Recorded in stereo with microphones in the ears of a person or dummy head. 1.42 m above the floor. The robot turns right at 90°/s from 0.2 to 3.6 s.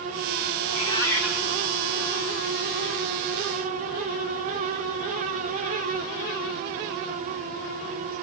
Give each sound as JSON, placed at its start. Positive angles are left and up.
{"t": 0.6, "sound": "a cat meowing", "azimuth_deg": 125, "distance_m": 1.6}